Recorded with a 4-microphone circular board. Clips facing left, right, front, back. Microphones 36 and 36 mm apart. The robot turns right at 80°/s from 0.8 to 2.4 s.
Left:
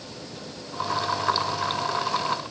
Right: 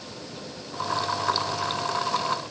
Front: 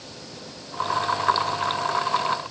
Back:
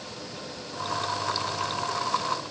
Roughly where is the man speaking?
No man speaking in this recording.